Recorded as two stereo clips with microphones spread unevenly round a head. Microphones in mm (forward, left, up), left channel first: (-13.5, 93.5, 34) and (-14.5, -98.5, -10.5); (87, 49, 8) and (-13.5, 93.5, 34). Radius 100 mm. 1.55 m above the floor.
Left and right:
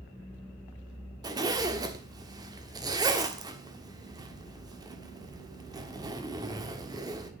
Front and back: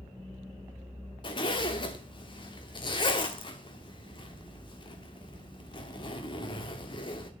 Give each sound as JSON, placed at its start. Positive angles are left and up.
{"t": 1.2, "sound": "a zipper", "azimuth_deg": -10, "distance_m": 1.2}